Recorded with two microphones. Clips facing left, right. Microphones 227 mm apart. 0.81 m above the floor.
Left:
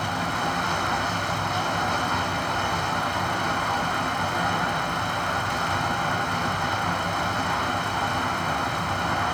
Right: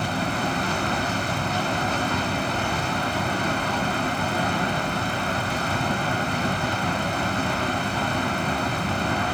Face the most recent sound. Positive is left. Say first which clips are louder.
# right 3 dB
turn(degrees=-35)  # may be behind; listen again after turning